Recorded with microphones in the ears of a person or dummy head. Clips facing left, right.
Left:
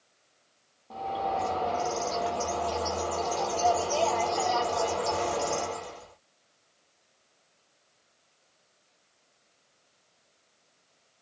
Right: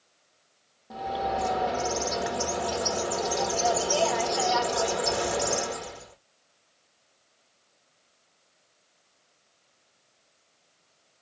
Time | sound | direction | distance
0.9 | a bird | 20° right (ahead or behind) | 0.8 m